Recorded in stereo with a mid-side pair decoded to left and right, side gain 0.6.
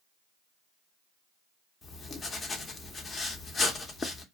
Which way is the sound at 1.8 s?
30° left.